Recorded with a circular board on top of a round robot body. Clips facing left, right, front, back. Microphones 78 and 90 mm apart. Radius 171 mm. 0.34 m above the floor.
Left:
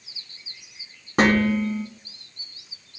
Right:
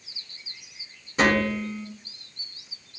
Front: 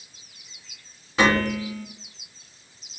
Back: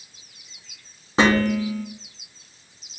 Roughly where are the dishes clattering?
Behind left.